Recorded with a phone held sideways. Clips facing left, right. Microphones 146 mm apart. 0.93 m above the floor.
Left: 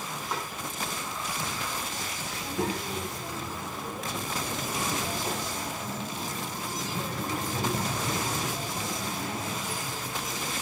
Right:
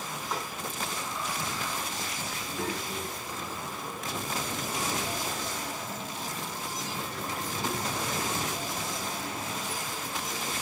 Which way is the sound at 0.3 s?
5° left (ahead or behind).